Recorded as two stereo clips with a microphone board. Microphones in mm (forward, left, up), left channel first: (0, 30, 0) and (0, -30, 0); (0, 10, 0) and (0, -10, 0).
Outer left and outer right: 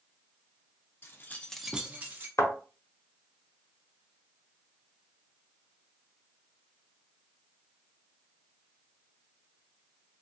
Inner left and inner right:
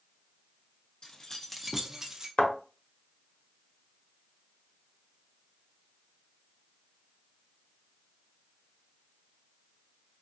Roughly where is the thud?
Left.